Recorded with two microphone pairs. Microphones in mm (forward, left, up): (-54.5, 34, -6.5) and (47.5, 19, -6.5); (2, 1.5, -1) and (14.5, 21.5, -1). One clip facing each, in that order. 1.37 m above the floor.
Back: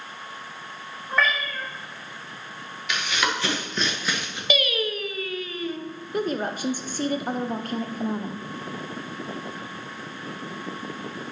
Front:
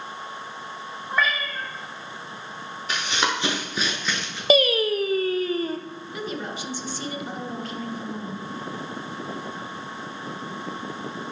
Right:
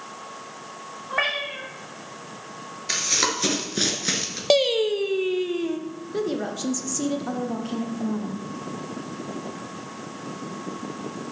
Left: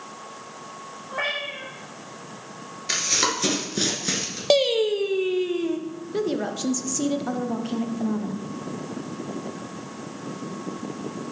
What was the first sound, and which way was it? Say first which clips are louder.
A cat meowing: back 1 dB, right 3 dB; 90° right.